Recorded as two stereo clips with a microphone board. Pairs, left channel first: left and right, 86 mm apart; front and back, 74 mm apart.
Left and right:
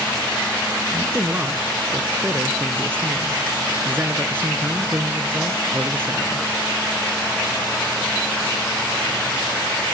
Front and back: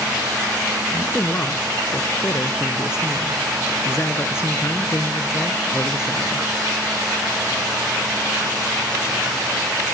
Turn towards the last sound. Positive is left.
turn(degrees=-35)